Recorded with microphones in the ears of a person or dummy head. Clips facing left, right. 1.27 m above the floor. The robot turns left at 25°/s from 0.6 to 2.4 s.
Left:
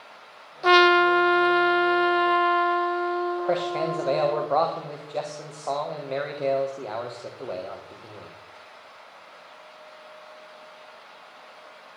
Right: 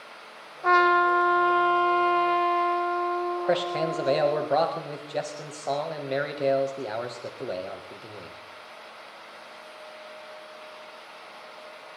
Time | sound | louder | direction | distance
0.6 | a trumpet | left 4 dB | 60° left | 0.5 m
3.5 | a man speaking | right 2 dB | 10° right (ahead or behind) | 1.5 m